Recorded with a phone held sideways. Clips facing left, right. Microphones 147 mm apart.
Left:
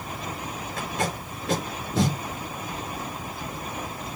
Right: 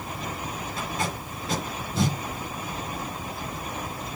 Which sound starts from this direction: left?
Tape being pulled, at 0.8 s.